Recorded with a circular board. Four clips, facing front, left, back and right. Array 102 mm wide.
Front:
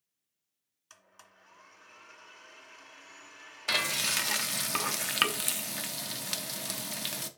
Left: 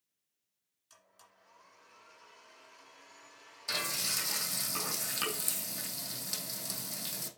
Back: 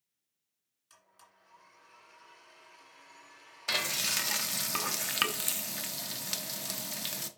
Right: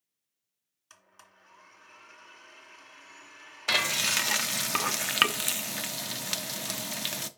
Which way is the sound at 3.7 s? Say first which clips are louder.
Right 9 dB, front 3 dB; 80° right.